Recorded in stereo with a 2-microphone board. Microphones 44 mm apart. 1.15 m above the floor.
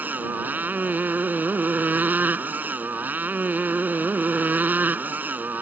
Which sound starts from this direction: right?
A motorcycle, at 0.0 s.